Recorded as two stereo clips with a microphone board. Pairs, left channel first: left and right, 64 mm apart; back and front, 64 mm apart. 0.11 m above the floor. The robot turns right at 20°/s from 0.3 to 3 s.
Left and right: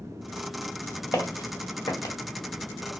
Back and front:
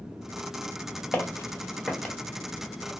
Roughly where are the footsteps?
Behind left.